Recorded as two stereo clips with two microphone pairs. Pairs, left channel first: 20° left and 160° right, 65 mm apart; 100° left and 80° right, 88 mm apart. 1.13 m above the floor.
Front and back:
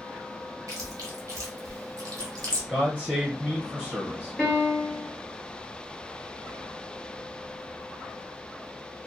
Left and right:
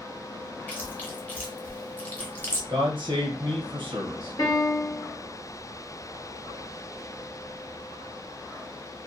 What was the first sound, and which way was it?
Chewing, 165° left.